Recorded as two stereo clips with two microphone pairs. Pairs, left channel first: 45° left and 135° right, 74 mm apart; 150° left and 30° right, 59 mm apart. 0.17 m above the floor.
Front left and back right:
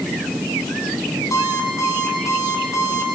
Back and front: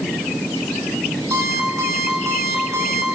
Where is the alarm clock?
5° left, 5 m.